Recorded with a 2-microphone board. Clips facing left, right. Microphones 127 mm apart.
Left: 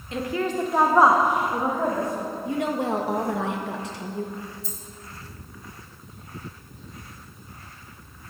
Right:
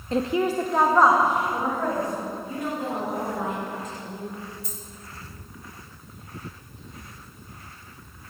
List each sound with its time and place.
0.1 s a woman speaking: 35° right (ahead or behind), 0.5 m; by 2.3 s 30° left (ahead or behind), 2.0 m
2.5 s a woman speaking: 75° left (ahead or behind), 1.5 m
4.6 s a dropped coin: 65° right (ahead or behind), 2.5 m